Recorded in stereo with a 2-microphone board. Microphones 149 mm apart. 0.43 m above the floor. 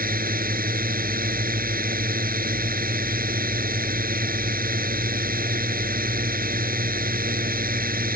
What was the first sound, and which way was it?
A drone, 80° right.